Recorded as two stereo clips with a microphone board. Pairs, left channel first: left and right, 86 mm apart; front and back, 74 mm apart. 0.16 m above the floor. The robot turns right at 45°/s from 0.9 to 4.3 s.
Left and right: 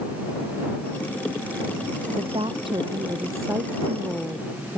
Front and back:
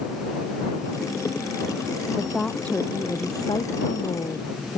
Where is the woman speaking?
95° right; by 4.8 s straight ahead.